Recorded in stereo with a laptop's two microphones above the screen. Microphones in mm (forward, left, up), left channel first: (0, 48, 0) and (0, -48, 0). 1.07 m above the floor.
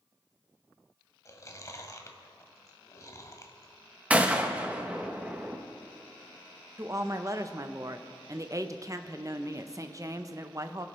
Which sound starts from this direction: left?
Chewing, at 1.2 s.